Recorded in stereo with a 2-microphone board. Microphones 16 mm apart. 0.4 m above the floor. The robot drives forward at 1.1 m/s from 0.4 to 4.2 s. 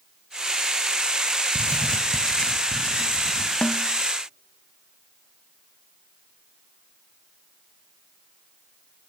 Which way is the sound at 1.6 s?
60° left (ahead or behind).